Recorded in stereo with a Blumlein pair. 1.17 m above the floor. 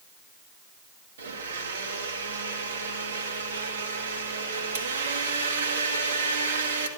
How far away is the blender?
About 1.7 m.